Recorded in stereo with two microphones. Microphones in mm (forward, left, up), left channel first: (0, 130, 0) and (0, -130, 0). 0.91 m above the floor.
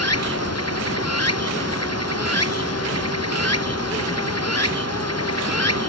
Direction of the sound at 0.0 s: 70° left (ahead or behind).